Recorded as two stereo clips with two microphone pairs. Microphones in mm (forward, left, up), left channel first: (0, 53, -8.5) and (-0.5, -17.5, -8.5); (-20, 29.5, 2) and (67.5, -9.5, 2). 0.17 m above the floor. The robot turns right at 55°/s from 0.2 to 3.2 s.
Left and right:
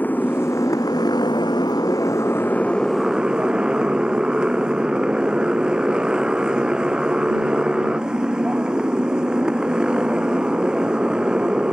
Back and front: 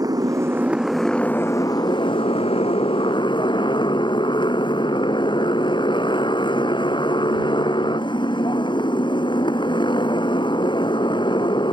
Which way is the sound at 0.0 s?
25° left.